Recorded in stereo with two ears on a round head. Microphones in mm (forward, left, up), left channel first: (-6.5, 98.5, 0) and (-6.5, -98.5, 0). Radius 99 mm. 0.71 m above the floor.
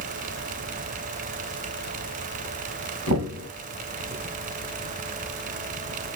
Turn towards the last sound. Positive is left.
turn(degrees=-75)  # may be behind; listen again after turning